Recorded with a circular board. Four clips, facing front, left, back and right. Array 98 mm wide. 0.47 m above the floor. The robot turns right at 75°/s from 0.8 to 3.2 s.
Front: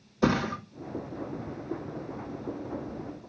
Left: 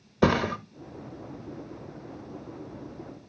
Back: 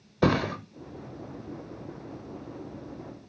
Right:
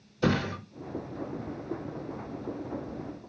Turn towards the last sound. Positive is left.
turn(degrees=-65)